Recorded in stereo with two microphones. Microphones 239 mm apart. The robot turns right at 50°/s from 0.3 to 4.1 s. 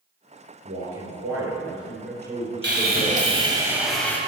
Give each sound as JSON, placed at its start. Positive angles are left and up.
{"t": 0.7, "sound": "a man speaking", "azimuth_deg": -125, "distance_m": 4.0}
{"t": 2.6, "sound": "sawing", "azimuth_deg": -65, "distance_m": 1.7}